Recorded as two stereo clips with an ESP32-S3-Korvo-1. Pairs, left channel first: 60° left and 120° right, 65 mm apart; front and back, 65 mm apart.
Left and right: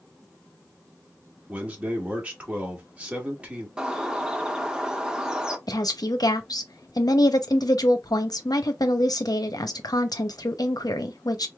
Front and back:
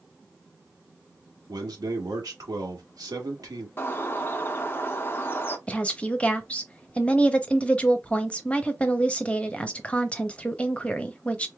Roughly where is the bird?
Ahead right.